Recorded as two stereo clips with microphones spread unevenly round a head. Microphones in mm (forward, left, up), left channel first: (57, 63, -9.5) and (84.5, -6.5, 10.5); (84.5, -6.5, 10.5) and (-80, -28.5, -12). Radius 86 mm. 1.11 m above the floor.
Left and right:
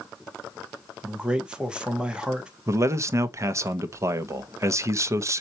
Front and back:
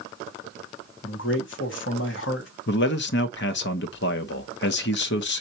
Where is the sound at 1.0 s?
15° left, 1.4 m.